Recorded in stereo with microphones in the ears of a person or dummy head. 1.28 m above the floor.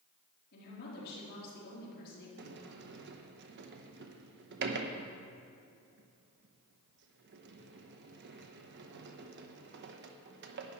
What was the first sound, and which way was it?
A woman speaking, 60° left (ahead or behind).